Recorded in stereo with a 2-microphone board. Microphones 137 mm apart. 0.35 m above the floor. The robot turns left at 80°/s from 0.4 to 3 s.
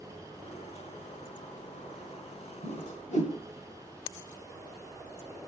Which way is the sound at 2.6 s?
65° left (ahead or behind).